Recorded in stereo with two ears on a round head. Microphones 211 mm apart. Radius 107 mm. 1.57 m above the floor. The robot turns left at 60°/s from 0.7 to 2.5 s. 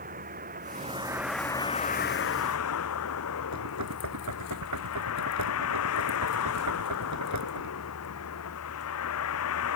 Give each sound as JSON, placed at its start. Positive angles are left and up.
{"t": 0.0, "sound": "a vehicle", "azimuth_deg": -145}
{"t": 3.5, "sound": "knocking", "side_deg": -75}